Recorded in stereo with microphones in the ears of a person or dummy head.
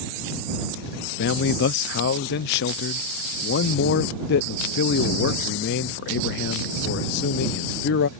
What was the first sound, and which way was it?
A man speaking, 60° left (ahead or behind).